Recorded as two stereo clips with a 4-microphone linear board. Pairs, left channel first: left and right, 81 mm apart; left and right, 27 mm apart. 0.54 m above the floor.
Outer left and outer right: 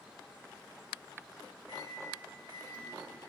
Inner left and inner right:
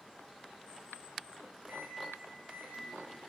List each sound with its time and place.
1.7 s a microwave: 60° right (ahead or behind), 1.1 m